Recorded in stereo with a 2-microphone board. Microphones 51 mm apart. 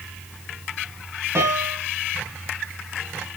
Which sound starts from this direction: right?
A piano, at 1.4 s.